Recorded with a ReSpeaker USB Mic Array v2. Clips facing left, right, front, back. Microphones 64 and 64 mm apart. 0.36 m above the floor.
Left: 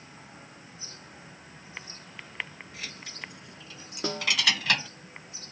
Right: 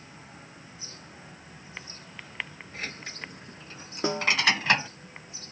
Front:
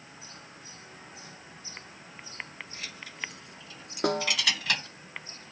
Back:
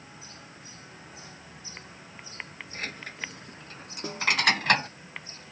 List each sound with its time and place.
2.7 s keys jangling: 140° right; by 4.9 s 150° right
4.0 s a snare drum: 20° right